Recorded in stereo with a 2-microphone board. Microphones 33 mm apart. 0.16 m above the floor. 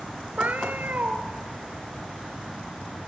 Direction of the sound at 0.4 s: 65° right (ahead or behind).